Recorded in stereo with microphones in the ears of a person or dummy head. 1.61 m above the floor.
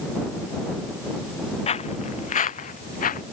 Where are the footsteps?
35° left (ahead or behind); by 3.2 s 45° left (ahead or behind).